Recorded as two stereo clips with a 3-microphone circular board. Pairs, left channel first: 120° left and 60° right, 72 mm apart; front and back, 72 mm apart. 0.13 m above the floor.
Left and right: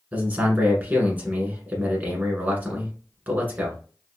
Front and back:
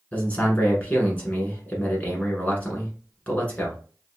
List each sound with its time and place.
0.1 s a man speaking: 35° right, 1.2 m